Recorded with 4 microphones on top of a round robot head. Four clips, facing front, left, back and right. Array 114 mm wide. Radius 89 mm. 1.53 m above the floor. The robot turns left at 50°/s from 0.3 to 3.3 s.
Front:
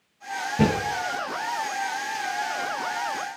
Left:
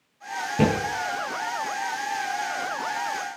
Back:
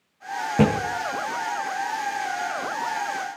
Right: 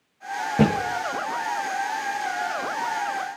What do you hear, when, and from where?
0.6 s a thud: 145° right, 3 m; by 0.7 s 150° right, 3 m